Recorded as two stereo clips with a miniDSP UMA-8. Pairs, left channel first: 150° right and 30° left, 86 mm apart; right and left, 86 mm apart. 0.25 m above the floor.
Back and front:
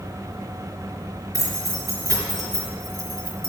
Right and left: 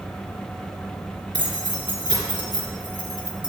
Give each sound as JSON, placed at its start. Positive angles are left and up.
{"t": 1.3, "sound": "keys jangling", "azimuth_deg": 75, "distance_m": 3.5}